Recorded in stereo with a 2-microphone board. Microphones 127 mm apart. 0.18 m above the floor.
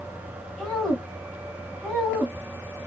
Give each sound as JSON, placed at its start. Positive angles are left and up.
{"t": 0.6, "sound": "a woman speaking", "side_deg": 5, "distance_m": 1.5}